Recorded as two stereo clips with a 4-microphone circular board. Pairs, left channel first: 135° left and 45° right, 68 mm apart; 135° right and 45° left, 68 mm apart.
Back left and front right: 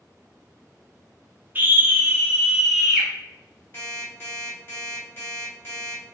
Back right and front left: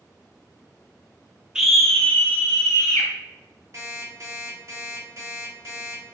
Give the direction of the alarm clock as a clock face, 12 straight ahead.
9 o'clock.